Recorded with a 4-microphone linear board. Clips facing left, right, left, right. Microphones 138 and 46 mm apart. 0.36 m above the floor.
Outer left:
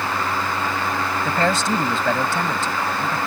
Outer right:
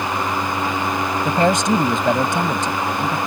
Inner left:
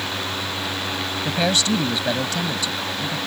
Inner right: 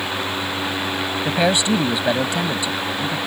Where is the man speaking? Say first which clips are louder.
Outer right 4 dB, inner right 3 dB; 20° right (ahead or behind).